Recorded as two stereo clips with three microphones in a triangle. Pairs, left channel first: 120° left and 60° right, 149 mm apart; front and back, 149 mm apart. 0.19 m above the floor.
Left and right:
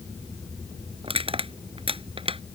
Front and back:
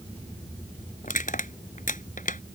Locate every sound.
1.0 s crushing: 15° right